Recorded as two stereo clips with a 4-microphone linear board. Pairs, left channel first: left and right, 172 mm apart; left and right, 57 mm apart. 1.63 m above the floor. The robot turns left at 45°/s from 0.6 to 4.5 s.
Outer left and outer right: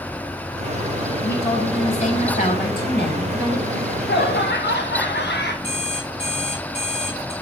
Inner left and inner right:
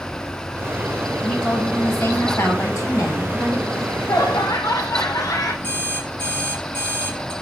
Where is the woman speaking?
170° left, 6 m; by 3.6 s 65° left, 6 m.